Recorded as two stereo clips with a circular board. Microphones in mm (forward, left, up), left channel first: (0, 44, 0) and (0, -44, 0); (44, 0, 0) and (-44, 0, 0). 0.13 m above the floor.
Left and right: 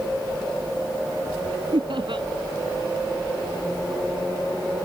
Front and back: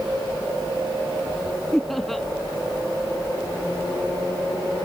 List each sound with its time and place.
1.7 s laughter: 85° right